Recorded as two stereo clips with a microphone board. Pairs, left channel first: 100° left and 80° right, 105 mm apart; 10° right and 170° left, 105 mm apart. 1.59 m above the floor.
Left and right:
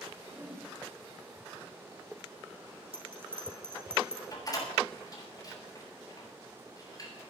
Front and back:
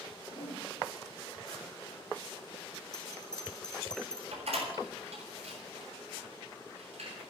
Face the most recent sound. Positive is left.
turn(degrees=155)